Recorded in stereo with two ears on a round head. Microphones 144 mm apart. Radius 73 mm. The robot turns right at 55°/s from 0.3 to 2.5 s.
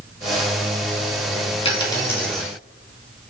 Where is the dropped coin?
140° left, 2.5 m; by 2.5 s 175° right, 2.5 m.